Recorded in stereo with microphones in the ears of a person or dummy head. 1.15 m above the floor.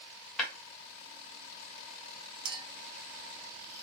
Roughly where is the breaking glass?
Centre.